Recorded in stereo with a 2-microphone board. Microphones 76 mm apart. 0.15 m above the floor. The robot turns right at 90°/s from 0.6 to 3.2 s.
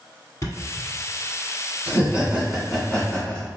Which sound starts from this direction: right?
Laughter, at 1.9 s.